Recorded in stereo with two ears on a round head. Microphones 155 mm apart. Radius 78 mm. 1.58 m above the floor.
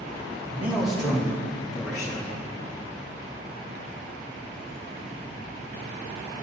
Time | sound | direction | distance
0.5 | a man speaking | 15° right (ahead or behind) | 1.5 m